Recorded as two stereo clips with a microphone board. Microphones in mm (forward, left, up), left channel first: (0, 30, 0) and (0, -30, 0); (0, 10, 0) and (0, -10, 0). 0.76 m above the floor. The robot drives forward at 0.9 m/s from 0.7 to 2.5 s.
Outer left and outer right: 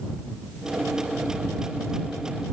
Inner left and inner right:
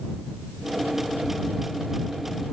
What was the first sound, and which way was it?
Only background noise.